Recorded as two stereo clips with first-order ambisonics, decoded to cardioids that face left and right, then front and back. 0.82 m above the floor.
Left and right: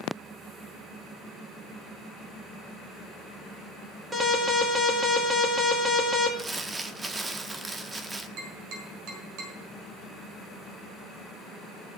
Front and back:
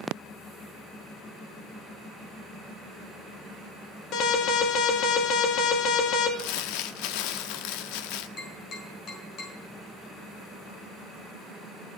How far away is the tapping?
About 5.5 m.